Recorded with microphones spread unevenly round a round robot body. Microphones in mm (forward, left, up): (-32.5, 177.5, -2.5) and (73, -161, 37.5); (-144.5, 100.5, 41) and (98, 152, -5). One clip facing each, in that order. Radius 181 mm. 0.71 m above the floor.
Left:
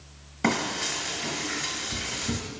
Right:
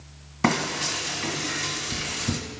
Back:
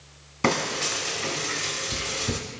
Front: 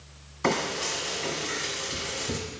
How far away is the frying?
About 1.7 m.